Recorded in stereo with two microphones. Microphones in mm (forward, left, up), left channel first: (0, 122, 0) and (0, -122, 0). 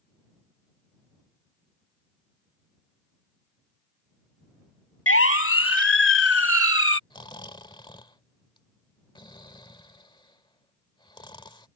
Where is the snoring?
20° left (ahead or behind).